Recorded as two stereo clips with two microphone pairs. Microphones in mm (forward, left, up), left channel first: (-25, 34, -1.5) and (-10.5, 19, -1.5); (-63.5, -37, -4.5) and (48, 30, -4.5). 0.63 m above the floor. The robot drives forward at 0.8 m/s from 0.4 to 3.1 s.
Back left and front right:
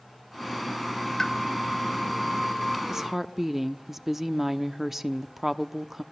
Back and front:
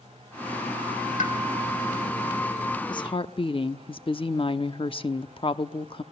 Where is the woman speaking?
110° right, 0.8 m; by 6.0 s 125° right, 0.9 m.